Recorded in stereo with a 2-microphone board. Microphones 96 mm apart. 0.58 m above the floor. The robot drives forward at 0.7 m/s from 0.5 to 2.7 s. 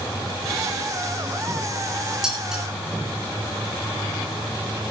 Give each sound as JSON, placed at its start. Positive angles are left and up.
{"t": 2.2, "sound": "dishes clattering", "side_deg": -5, "distance_m": 6.0}